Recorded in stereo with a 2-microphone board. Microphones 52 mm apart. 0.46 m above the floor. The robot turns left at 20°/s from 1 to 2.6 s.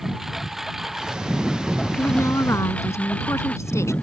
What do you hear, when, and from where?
0.0 s a lawn mower: 175° right; by 4.0 s 155° left
2.0 s a woman speaking: 60° left (ahead or behind); by 3.9 s 70° left (ahead or behind)